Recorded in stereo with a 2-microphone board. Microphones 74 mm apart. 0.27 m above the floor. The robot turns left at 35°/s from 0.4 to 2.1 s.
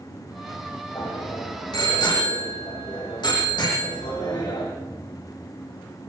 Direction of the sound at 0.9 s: 50° left (ahead or behind).